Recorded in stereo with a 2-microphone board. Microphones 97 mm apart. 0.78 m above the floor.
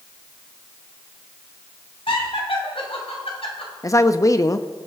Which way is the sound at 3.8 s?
35° left (ahead or behind).